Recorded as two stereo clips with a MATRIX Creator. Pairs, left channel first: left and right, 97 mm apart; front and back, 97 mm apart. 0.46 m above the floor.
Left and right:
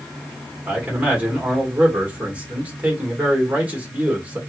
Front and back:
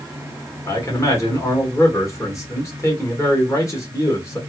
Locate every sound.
0.7 s a man speaking: 30° right, 1.7 m